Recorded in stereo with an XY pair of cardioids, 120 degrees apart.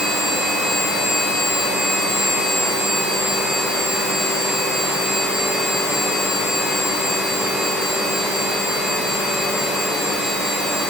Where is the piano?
I don't hear a piano.